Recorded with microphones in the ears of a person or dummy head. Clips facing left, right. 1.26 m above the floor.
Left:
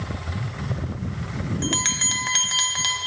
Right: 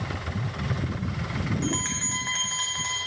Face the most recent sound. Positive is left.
turn(degrees=50)  # may be behind; listen again after turning